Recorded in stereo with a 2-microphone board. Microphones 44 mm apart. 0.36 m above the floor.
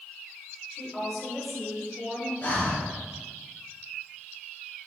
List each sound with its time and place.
0.7 s a woman speaking: centre (ahead or behind), 0.8 m
2.4 s breathing: 45° left (ahead or behind), 1.9 m